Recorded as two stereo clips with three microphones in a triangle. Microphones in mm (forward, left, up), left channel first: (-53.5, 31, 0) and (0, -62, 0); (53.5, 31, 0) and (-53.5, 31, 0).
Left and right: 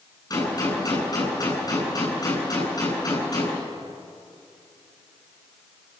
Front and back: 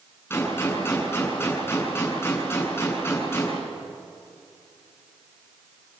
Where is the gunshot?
70° left, 7.5 m.